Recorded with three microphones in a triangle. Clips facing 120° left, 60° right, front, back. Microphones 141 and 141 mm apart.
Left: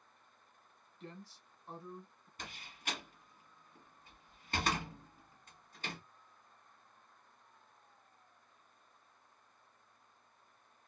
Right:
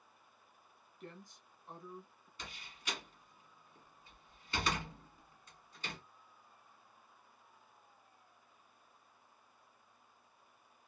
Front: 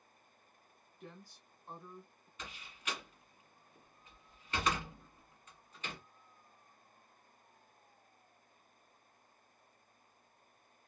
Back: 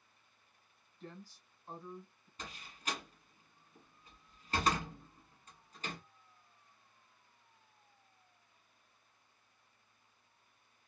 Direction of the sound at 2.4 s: 140° left.